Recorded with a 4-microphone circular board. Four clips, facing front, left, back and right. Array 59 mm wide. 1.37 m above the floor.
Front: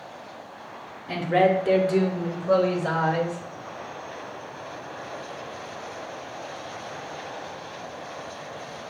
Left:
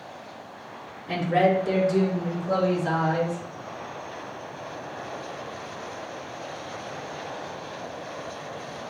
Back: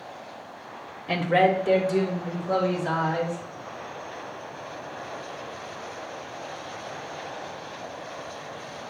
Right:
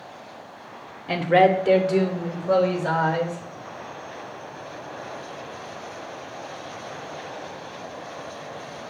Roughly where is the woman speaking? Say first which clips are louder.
Right 4 dB, even; behind right.